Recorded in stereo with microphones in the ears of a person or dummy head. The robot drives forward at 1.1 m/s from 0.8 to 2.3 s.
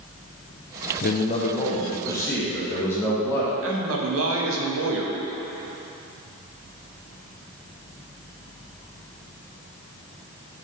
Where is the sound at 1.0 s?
45° left (ahead or behind), 0.6 m; by 3.5 s 15° left (ahead or behind), 1.7 m.